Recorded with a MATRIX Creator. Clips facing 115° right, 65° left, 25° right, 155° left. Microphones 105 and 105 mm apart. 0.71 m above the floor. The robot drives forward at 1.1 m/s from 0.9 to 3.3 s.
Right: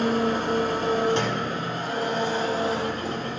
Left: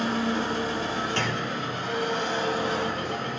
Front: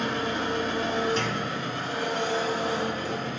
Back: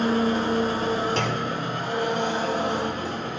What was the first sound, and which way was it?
An engine running, 155° right.